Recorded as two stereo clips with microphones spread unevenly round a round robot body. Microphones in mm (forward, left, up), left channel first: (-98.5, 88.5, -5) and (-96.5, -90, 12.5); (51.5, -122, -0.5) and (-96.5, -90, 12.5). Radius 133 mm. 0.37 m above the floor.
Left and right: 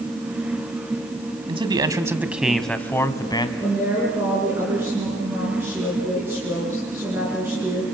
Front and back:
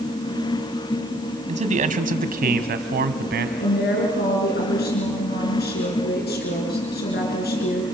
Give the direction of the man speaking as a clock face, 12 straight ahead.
5 o'clock.